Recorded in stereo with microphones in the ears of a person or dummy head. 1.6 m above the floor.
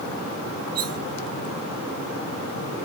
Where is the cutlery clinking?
60° right (ahead or behind).